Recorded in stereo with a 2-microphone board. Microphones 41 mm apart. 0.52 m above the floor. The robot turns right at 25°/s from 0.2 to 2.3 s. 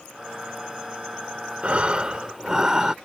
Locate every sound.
1.6 s breathing: 30° right (ahead or behind); by 3.0 s 15° right (ahead or behind)